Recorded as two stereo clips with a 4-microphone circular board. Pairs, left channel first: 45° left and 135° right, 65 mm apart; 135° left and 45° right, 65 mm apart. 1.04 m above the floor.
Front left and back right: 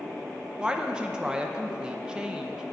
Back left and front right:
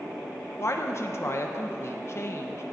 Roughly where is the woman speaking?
Behind left.